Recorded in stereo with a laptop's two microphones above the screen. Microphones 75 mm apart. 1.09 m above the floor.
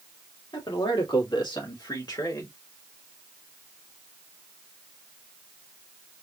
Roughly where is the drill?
No drill in this recording.